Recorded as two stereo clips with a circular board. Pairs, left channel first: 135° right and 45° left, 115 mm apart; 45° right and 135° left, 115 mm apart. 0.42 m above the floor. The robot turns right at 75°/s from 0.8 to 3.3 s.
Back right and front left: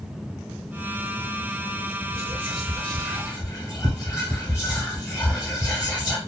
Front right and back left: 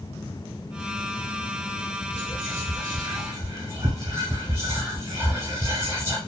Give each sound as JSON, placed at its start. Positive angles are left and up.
{"t": 2.1, "sound": "whispering", "azimuth_deg": 85, "distance_m": 1.1}